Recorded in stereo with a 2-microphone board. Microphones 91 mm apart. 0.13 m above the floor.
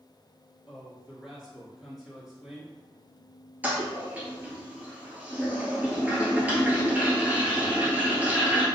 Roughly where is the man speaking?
Centre.